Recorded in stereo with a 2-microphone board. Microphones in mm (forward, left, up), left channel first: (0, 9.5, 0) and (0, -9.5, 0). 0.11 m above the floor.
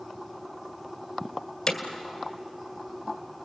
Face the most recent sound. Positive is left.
turn(degrees=55)  # may be behind; listen again after turning